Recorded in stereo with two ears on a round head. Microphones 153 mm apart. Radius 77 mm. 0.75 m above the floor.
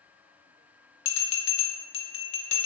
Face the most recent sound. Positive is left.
turn(degrees=35)  # may be behind; listen again after turning